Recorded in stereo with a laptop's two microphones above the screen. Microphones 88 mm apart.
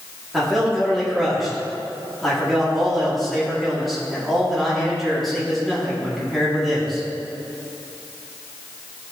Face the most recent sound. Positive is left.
turn(degrees=0)  # may be behind; listen again after turning